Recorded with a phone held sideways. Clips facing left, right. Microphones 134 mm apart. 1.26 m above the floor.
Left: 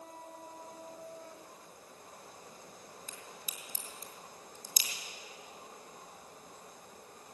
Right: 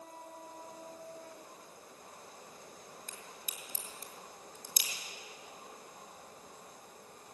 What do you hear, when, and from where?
3.1 s a crack: 60° right (ahead or behind), 3.5 m